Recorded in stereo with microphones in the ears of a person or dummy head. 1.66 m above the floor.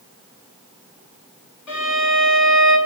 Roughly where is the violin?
Left.